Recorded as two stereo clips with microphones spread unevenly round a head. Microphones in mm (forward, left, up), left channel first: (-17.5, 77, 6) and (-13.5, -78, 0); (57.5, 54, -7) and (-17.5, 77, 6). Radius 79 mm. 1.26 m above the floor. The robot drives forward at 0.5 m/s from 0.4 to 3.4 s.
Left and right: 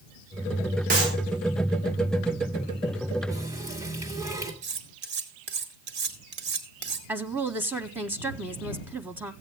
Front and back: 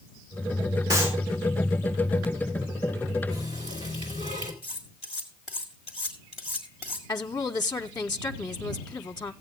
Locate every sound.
0.9 s a clap: 130° right, 3 m
3.3 s a running tap: 160° right, 2.5 m
4.6 s cutlery clinking: 110° right, 1.6 m
7.1 s a woman speaking: 20° right, 0.6 m